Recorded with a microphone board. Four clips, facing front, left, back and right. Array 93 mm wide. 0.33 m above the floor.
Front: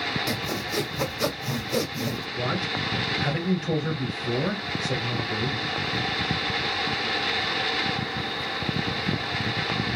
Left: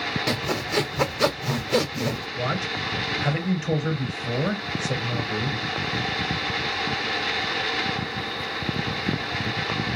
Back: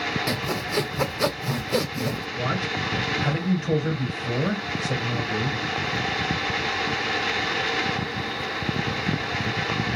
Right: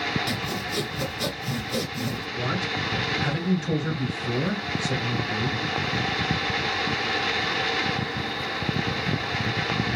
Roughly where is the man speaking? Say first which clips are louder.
Left 1 dB, even; left.